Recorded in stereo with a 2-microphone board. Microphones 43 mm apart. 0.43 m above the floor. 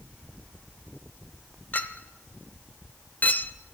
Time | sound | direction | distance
1.7 | a clink | 40° left (ahead or behind) | 0.6 m